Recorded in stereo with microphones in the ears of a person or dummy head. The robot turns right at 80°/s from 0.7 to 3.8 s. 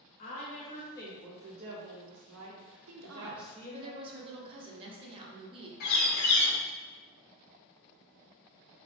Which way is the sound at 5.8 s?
50° left (ahead or behind).